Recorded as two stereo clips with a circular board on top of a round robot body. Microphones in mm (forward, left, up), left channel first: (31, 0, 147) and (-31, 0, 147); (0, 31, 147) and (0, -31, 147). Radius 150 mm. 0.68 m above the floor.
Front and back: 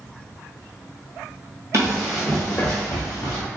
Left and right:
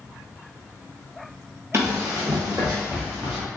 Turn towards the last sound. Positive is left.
turn(degrees=-15)